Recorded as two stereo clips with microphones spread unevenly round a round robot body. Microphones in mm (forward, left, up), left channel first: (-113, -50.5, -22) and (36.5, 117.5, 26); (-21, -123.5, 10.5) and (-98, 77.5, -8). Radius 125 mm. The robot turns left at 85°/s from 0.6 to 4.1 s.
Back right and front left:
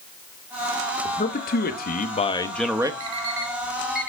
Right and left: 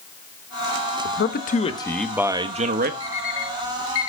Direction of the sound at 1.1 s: 75° right.